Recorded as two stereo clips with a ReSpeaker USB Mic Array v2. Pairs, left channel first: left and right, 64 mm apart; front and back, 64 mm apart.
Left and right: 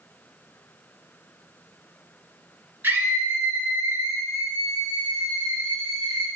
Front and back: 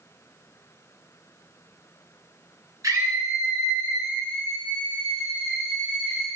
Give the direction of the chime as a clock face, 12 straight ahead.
No chime in this recording.